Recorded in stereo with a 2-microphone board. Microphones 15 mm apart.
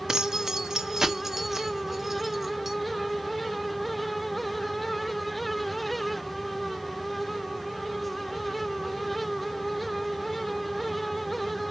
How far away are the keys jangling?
About 1.5 m.